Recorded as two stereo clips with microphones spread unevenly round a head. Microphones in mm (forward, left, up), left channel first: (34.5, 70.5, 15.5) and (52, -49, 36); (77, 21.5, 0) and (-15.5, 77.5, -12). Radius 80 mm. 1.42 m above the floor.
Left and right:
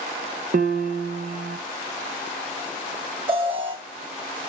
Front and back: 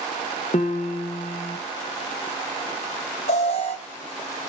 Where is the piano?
80° right, 0.9 m.